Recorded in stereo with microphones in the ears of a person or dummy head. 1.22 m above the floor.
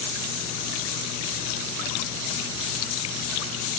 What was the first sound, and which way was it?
Only background noise.